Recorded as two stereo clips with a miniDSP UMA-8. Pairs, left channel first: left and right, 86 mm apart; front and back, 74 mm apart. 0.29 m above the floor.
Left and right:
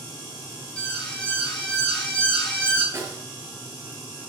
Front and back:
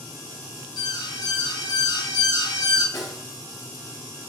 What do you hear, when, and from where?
0.8 s an alarm: 10° left, 5.5 m
2.9 s a snare drum: 30° right, 5.5 m